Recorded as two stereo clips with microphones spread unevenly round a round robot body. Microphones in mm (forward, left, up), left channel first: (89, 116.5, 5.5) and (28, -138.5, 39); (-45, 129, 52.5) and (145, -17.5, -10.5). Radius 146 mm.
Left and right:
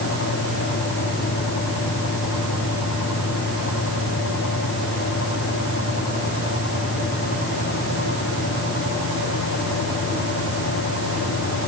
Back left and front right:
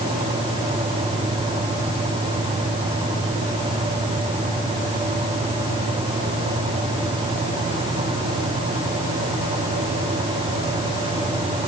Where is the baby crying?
No baby crying in this recording.